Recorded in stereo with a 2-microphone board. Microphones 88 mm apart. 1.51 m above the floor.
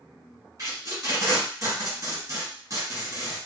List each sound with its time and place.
0.6 s tape being pulled: 40° right (ahead or behind), 1.7 m